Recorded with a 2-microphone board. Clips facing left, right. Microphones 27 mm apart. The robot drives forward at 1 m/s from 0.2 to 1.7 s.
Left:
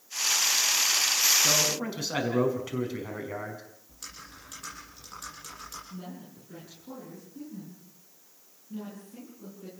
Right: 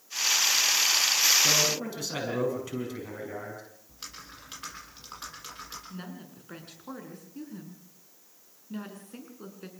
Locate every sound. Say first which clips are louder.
1.4 s a man speaking: right 1 dB; 15° left (ahead or behind), 5.5 m
3.9 s typing on a keyboard: right 1 dB; 35° right (ahead or behind), 8.5 m
5.9 s a woman speaking: even; 70° right (ahead or behind), 6.5 m